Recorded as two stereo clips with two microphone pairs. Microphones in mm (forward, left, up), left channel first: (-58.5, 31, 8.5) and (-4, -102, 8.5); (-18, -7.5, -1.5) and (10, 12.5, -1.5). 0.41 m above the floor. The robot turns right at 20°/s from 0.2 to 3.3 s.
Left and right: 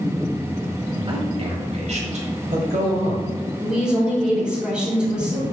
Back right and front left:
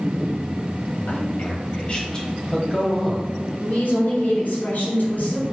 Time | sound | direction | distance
1.1 | a man speaking | 110° right | 1.7 m
3.6 | a woman speaking | 150° right | 3 m